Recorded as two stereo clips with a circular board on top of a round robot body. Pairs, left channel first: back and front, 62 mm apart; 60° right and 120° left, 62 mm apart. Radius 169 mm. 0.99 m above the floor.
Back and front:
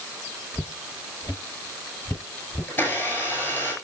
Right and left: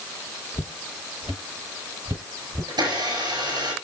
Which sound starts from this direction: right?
Footsteps, at 0.5 s.